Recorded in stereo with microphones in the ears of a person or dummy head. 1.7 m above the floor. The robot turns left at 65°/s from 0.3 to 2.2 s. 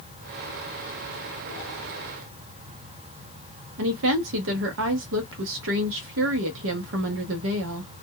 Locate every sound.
3.8 s a woman speaking: 65° right (ahead or behind), 0.6 m